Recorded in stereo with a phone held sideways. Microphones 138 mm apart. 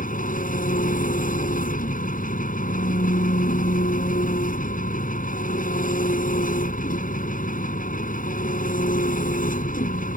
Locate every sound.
0.0 s an engine running: 85° left